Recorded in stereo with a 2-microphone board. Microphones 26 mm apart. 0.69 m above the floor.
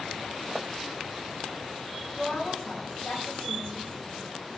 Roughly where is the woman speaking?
Left.